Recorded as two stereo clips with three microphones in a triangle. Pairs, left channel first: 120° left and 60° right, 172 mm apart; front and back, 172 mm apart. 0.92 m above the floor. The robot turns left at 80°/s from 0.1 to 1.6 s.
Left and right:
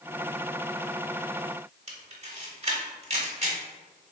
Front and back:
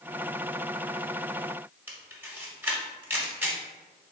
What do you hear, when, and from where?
1.9 s a camera shutter: 105° right, 1.1 m